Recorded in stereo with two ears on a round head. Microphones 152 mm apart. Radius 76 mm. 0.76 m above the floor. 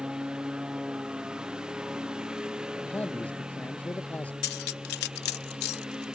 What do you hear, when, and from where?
0.0 s a lawn mower: 5° right (ahead or behind)
2.8 s a man speaking: 10° left (ahead or behind)
4.4 s cutlery clinking: 65° left (ahead or behind)